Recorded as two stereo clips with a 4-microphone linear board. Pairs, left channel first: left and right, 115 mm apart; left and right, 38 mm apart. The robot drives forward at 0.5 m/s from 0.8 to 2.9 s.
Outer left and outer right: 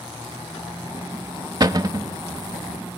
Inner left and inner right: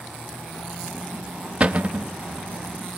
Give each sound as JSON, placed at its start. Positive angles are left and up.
{"t": 1.6, "sound": "a cupboard door", "side_deg": -35, "distance_m": 0.7}